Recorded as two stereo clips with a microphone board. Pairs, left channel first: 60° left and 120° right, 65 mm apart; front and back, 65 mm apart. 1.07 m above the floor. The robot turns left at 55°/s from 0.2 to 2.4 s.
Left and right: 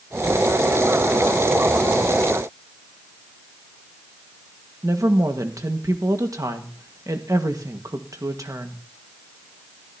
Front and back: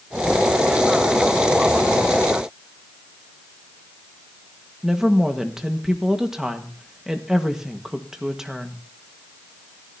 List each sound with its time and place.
4.8 s a woman speaking: 100° right, 1.6 m